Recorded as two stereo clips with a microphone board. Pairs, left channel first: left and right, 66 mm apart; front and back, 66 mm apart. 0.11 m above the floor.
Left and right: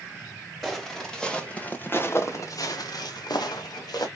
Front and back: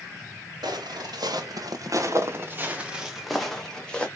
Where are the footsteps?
Straight behind, 1.7 m; by 4.1 s 75° left, 1.7 m.